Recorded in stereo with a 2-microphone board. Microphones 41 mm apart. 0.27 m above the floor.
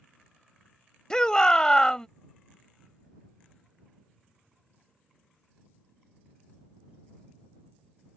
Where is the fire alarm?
I don't hear a fire alarm.